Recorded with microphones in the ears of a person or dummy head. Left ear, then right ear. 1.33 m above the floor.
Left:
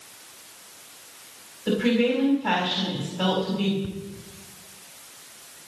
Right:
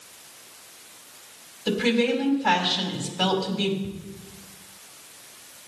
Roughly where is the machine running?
I don't hear a machine running.